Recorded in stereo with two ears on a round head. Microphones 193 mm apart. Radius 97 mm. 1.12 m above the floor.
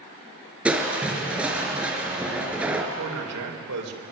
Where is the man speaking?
85° right, 3.5 m.